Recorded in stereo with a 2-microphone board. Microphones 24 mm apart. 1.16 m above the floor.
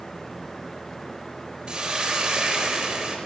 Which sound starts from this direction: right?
A hiss, at 1.7 s.